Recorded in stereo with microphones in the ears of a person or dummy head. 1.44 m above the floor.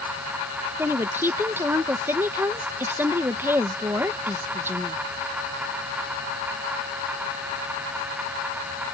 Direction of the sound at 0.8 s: 15° right (ahead or behind).